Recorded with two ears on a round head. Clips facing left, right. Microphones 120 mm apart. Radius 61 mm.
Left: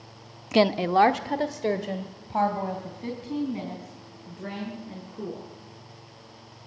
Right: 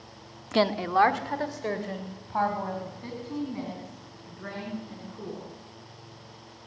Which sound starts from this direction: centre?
A woman speaking, at 0.5 s.